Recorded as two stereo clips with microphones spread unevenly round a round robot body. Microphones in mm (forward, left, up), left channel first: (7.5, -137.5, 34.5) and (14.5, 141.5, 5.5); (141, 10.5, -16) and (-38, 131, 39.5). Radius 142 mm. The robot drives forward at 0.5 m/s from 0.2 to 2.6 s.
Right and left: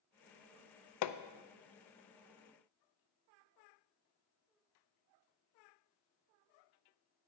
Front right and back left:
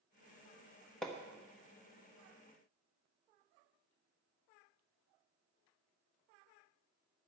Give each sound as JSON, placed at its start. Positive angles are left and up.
{"t": 1.0, "sound": "hammering", "azimuth_deg": -110, "distance_m": 0.6}